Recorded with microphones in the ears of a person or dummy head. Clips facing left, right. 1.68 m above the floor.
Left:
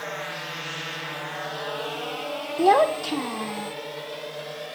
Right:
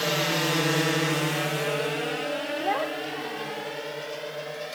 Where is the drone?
55° right (ahead or behind); by 4.8 s centre (ahead or behind).